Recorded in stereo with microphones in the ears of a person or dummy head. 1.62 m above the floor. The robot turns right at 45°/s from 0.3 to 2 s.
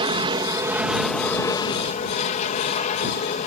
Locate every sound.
0.0 s an aircraft: 35° right; by 3.5 s 45° left